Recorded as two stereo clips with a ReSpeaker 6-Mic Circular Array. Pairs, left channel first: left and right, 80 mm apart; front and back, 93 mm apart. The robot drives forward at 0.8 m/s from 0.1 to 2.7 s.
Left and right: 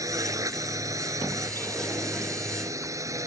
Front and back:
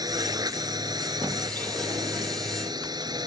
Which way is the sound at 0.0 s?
135° right.